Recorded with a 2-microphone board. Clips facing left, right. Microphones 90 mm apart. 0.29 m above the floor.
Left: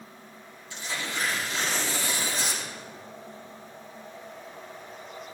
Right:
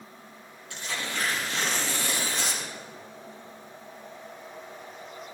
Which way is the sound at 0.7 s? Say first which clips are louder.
Even; 65° right (ahead or behind).